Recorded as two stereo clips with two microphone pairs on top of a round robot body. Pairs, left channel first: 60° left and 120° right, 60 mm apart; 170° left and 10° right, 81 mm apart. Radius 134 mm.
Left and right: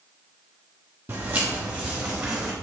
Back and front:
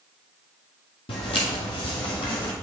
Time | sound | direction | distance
1.1 | footsteps | 175° right | 1.1 m